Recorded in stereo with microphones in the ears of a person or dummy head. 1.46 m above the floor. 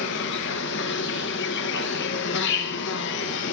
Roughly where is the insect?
Left.